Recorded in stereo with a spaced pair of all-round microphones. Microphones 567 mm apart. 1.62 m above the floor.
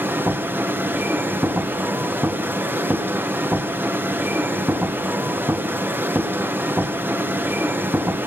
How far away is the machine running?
About 1.1 m.